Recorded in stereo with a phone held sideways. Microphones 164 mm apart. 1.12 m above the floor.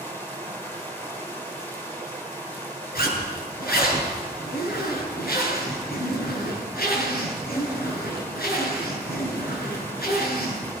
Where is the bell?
No bell in this recording.